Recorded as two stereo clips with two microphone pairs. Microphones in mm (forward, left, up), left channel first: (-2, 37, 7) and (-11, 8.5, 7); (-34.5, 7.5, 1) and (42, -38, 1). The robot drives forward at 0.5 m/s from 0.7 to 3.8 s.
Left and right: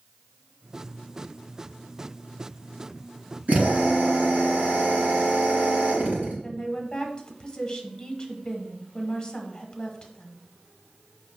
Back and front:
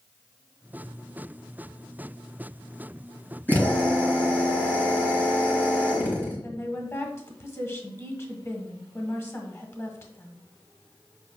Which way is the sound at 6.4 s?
115° left.